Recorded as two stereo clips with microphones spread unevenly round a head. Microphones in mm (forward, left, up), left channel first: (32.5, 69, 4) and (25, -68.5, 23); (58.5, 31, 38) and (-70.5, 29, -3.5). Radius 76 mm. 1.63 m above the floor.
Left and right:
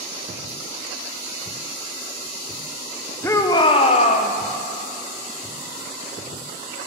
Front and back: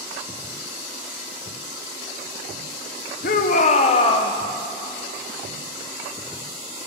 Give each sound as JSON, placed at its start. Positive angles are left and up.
{"t": 3.2, "sound": "a shout", "azimuth_deg": 10, "distance_m": 1.1}